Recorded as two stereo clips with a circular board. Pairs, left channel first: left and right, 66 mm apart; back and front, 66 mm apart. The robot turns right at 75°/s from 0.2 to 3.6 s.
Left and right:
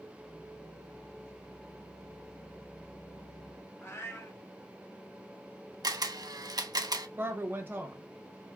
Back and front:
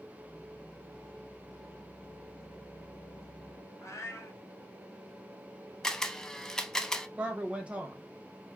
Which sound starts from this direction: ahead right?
A woman speaking, at 7.2 s.